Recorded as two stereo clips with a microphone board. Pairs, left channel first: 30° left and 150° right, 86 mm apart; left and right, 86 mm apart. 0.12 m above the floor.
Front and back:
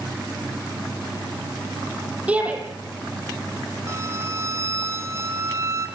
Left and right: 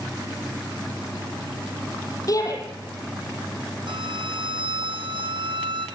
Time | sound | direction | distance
2.3 | a shout | 135° left | 5 m
3.9 | a violin | 95° right | 1.4 m